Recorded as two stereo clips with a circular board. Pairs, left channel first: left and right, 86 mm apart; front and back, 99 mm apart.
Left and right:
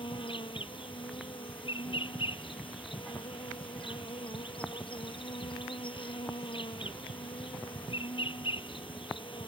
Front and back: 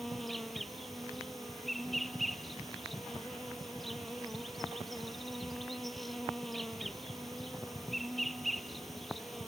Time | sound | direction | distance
0.0 | an insect | 90° left | ?